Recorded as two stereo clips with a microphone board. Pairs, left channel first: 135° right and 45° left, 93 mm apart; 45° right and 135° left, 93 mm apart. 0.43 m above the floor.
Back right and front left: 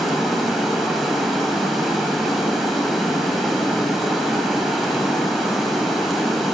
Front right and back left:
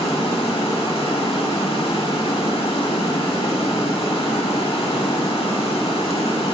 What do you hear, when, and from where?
0.0 s running water: 45° right, 0.9 m